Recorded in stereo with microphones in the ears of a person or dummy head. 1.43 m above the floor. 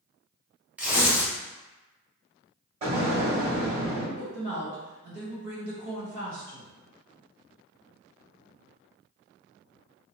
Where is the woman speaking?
65° right (ahead or behind), 1.4 m.